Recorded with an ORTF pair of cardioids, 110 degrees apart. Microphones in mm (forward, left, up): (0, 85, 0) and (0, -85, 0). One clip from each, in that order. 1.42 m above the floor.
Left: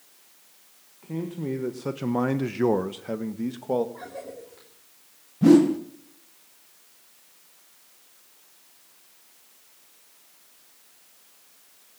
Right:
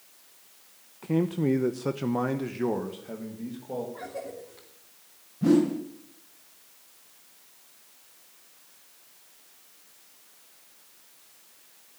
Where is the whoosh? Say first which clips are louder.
Left 6 dB; 35° left, 1.4 m.